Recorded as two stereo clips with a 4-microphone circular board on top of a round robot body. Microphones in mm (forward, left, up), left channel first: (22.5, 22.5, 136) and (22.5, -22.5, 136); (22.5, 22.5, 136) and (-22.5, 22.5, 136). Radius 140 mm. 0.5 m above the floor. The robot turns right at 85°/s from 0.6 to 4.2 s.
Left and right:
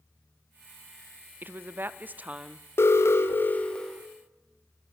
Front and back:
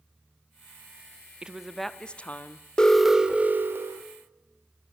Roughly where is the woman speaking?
Behind right.